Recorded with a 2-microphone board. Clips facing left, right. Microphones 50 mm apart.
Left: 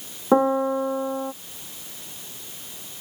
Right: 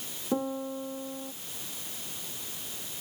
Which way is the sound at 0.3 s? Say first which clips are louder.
Left 13 dB; 80° left.